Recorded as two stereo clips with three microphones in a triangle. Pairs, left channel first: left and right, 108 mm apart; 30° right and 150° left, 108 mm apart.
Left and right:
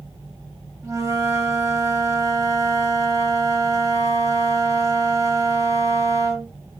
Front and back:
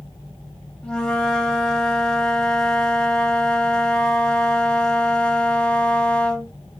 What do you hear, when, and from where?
0.8 s a flute: 105° right, 0.6 m